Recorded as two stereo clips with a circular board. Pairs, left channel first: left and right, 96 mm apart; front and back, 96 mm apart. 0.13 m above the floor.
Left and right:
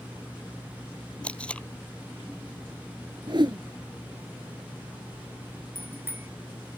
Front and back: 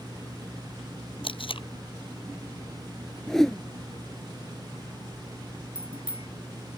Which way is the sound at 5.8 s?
25° right.